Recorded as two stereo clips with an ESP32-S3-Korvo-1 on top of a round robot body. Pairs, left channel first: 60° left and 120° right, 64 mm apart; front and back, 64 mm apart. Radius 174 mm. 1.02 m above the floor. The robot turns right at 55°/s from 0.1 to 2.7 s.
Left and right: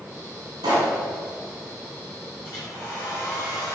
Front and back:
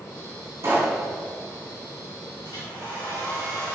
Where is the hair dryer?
5° left, 3.5 m; by 3.8 s 20° left, 3.5 m.